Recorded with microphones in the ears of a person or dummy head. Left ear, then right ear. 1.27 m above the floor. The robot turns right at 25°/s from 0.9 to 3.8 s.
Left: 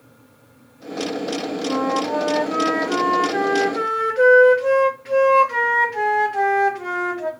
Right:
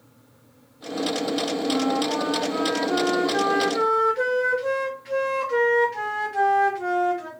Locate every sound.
1.7 s a flute: 115° left, 1.3 m; by 7.3 s 170° left, 1.3 m